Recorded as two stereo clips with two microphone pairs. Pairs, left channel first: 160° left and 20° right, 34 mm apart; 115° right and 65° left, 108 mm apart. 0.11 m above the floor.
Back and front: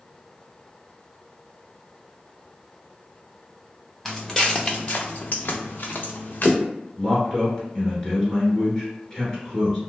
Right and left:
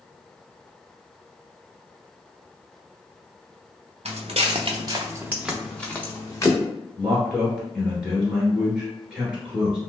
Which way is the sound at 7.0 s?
135° left.